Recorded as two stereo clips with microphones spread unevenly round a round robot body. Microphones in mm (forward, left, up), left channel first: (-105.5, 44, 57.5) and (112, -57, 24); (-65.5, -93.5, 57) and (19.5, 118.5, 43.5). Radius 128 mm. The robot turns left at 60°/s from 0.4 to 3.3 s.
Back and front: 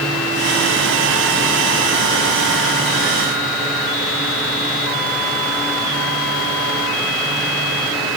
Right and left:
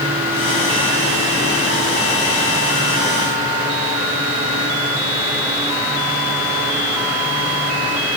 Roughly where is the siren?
No siren in this recording.